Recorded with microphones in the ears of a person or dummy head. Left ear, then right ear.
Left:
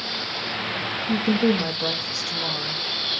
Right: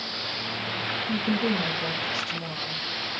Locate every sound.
1.1 s a woman speaking: 20° left (ahead or behind), 0.6 m